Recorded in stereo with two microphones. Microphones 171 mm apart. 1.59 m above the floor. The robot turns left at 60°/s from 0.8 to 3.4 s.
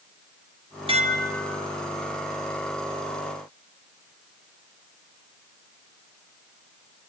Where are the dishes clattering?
35° right, 2.0 m; by 1.6 s 75° right, 2.0 m.